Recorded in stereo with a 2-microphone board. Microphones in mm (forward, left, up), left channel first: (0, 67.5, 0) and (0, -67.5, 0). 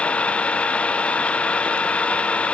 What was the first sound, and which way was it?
An engine running, 10° left (ahead or behind).